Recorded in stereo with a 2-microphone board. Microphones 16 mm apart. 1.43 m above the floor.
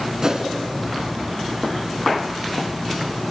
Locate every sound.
0.2 s a whoosh: 40° right (ahead or behind), 3 m